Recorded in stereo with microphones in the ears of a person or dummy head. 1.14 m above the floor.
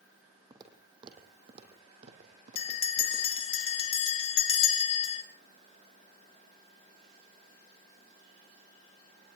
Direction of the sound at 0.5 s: 25° right (ahead or behind).